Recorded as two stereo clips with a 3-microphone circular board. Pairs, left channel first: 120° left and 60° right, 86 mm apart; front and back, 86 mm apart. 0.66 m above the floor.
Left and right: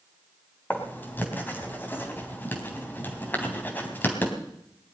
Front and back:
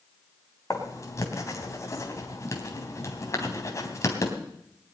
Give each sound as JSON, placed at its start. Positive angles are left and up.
{"t": 0.7, "sound": "writing", "azimuth_deg": 55, "distance_m": 3.0}